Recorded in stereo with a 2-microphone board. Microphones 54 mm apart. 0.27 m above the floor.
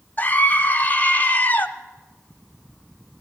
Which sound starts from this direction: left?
A scream, at 0.2 s.